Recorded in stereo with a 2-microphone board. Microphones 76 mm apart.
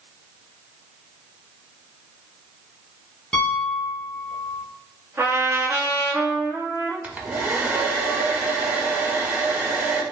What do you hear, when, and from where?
3.3 s a piano: 15° left (ahead or behind), 1.0 m
5.2 s a trumpet: 30° right (ahead or behind), 1.4 m
7.0 s a hair dryer: 20° right (ahead or behind), 0.6 m